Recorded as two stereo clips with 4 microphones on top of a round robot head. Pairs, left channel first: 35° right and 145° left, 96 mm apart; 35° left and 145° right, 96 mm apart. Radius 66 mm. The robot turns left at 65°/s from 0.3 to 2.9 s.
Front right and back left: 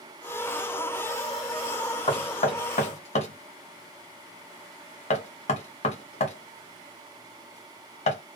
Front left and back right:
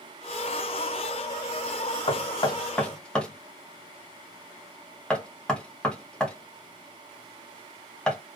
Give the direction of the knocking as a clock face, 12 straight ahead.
12 o'clock.